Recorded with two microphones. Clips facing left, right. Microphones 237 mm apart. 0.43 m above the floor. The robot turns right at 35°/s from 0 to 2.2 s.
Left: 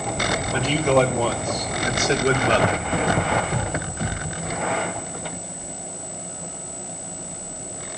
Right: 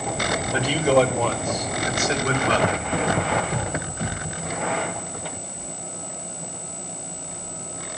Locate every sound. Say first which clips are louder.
0.5 s a man speaking: right 1 dB; 20° right, 1.3 m; by 2.8 s 40° left, 1.3 m